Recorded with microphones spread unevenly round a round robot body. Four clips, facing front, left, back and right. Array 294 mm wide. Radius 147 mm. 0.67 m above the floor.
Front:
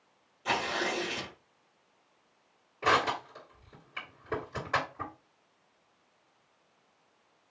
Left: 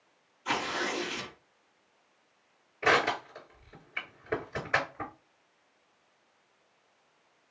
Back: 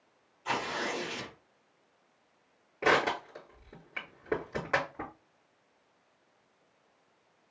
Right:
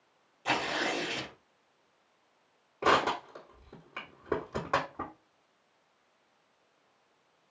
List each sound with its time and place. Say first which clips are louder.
0.5 s tearing paper: right 1 dB, front 2 dB; 55° right, 2 m
2.8 s crushing: even, even; 125° right, 2 m